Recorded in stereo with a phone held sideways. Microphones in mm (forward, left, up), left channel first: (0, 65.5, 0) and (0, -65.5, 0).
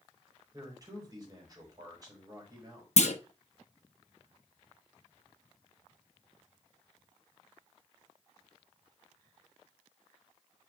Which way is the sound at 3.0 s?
60° left (ahead or behind).